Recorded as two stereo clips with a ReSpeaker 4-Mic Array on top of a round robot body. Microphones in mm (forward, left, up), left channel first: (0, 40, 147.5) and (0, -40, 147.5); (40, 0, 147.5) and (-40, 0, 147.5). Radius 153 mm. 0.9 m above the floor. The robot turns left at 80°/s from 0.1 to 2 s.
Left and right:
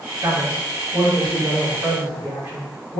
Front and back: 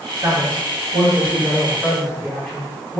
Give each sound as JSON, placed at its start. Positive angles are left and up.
{"t": 0.2, "sound": "a man speaking", "azimuth_deg": -140, "distance_m": 1.5}